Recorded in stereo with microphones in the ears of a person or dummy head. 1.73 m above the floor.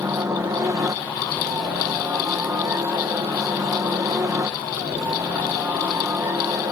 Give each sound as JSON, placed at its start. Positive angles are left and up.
{"t": 0.0, "sound": "a helicopter", "side_deg": -20}